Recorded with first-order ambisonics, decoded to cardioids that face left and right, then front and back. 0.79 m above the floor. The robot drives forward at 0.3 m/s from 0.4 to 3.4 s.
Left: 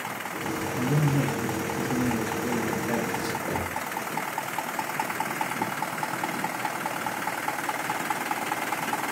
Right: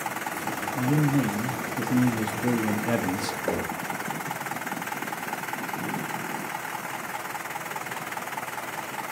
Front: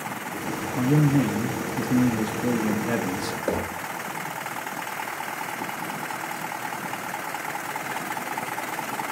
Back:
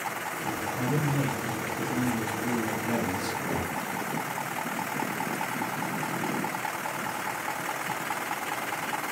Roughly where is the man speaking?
Ahead.